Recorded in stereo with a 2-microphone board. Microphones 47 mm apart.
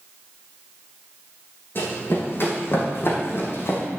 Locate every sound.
1.8 s running footsteps: 50° left (ahead or behind), 3 m; by 3.8 s 55° left (ahead or behind), 2.5 m